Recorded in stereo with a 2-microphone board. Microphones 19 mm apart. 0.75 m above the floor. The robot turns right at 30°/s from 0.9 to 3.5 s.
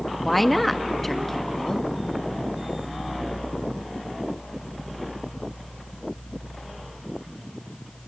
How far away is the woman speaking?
About 0.8 m.